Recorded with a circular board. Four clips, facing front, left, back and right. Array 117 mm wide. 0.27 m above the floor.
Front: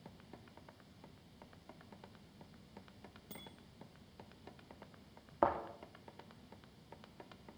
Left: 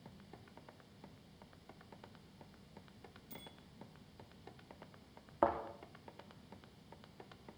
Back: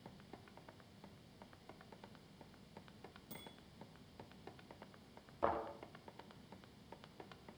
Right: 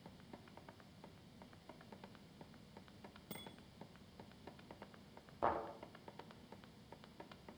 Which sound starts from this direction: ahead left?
A thud, at 5.4 s.